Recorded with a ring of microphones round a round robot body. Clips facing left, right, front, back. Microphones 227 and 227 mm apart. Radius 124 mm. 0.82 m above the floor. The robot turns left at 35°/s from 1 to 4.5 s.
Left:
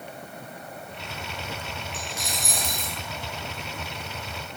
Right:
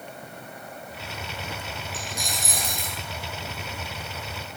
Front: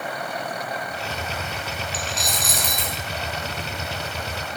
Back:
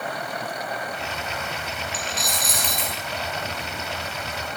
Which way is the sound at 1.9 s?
15° left.